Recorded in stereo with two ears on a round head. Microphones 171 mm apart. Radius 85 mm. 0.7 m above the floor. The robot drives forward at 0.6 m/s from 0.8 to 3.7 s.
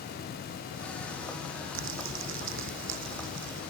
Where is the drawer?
No drawer in this recording.